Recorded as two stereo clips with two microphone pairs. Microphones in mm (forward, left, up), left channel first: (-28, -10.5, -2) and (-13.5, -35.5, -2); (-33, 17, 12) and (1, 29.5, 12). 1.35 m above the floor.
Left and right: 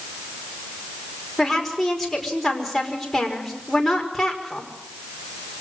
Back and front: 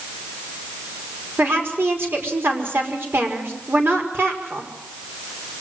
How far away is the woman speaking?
About 5 m.